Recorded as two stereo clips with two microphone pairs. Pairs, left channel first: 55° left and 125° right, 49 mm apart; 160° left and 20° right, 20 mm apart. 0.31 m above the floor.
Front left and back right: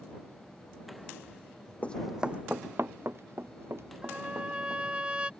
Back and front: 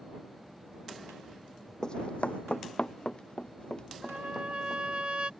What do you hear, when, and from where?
1.8 s running footsteps: 110° left; by 4.8 s 150° right
4.0 s a trumpet: 55° right